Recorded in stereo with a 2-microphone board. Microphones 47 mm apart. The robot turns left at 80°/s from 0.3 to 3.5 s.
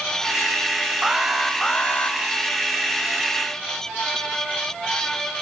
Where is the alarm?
160° right, 0.7 m; by 2.2 s 110° left, 0.7 m.